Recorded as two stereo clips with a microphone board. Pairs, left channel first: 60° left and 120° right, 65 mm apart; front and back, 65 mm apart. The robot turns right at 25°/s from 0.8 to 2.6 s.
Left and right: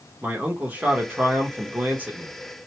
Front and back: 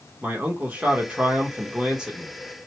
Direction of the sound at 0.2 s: 145° right.